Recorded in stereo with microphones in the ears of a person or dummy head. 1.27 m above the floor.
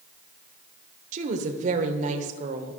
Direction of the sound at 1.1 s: 45° right (ahead or behind).